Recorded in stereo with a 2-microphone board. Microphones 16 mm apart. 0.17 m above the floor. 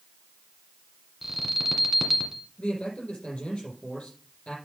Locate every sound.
1.2 s an alarm: 10° right (ahead or behind), 1.7 m
2.6 s a man speaking: 75° left (ahead or behind), 6 m